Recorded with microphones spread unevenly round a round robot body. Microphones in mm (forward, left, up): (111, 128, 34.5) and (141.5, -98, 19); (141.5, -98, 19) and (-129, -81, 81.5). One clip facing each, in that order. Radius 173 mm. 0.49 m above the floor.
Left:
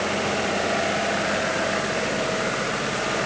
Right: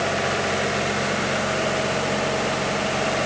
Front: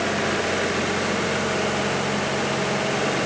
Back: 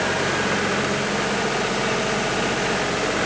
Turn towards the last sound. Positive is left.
No sound to turn to.